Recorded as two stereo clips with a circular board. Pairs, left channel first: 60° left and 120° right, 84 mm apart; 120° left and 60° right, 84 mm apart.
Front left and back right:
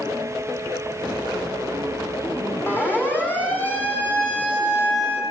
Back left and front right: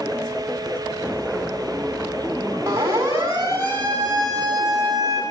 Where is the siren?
5° right, 7.5 m; by 5.2 s 20° right, 7 m.